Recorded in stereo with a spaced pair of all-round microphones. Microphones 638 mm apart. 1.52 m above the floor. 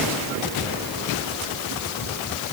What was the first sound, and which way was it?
Only background noise.